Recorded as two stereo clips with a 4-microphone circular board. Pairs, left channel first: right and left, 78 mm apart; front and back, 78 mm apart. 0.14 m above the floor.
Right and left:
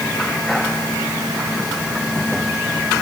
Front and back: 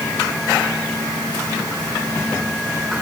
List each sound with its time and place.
Only background noise.